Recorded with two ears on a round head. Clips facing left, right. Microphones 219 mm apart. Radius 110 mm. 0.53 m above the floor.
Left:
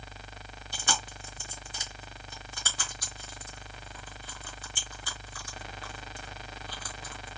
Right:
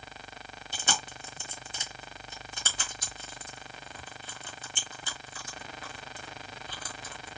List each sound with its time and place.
0.7 s chewing: 20° right (ahead or behind), 0.8 m